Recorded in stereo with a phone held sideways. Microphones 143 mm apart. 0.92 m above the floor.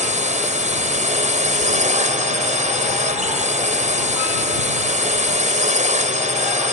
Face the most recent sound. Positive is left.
turn(degrees=-60)  # may be behind; listen again after turning